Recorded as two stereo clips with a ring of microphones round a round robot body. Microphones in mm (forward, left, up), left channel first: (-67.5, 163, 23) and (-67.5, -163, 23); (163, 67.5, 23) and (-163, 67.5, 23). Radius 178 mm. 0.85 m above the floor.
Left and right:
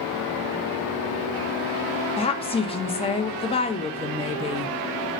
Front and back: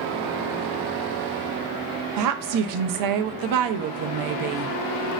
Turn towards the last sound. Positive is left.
turn(degrees=165)